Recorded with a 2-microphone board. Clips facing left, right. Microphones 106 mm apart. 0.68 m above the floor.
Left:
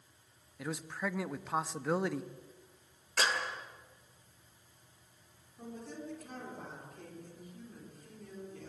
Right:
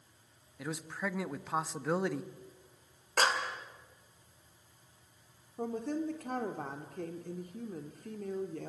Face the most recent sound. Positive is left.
turn(degrees=-60)  # may be behind; listen again after turning